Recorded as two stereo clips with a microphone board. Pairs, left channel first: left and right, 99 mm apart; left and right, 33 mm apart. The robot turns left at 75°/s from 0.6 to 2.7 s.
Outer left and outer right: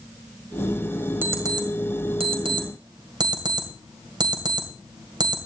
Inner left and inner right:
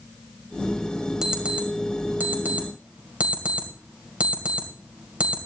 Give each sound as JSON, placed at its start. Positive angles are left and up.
{"t": 1.2, "sound": "an alarm clock", "side_deg": -20, "distance_m": 2.5}